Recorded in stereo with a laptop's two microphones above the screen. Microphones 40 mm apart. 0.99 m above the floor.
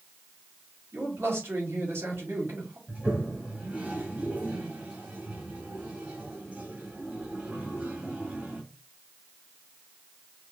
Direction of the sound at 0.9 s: 85° right.